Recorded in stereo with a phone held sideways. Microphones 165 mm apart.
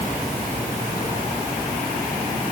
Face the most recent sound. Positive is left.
No sound to turn to.